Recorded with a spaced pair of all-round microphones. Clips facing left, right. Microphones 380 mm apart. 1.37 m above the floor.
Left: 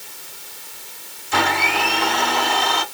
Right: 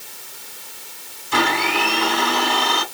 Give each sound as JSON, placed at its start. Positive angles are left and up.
{"t": 1.3, "sound": "a blender", "side_deg": -5, "distance_m": 4.0}